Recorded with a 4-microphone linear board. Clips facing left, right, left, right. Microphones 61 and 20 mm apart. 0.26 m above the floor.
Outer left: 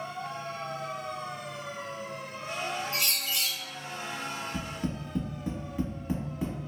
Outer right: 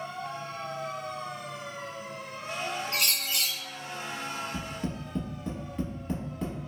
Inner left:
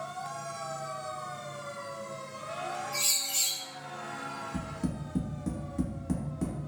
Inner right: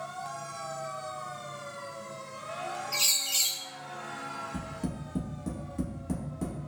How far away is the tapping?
About 1.0 m.